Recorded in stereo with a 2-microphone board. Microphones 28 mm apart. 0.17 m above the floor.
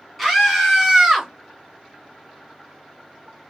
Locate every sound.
0.2 s a scream: 5° left (ahead or behind), 1.8 m; by 1.3 s 10° right (ahead or behind), 2.0 m